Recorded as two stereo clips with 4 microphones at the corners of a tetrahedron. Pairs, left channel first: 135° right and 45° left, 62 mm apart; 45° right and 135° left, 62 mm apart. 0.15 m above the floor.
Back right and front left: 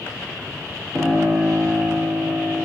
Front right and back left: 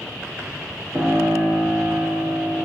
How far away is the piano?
About 0.8 m.